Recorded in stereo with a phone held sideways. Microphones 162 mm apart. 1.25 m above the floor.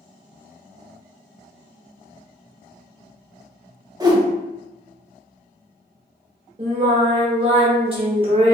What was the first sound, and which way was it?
A whoosh, 20° right (ahead or behind).